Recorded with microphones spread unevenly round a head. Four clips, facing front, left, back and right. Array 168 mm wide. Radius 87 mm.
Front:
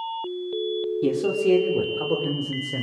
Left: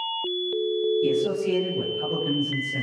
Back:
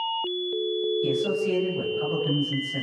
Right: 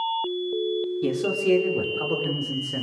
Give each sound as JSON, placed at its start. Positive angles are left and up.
{"t": 1.0, "sound": "a man speaking", "azimuth_deg": -20, "distance_m": 5.0}